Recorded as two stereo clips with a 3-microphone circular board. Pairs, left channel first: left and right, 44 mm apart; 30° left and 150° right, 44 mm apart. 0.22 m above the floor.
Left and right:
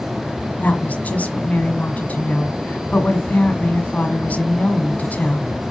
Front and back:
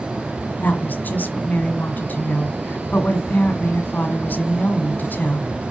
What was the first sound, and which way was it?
A woman speaking, 50° left.